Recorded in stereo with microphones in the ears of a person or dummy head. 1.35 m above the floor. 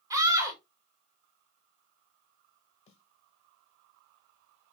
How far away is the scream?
About 1.7 m.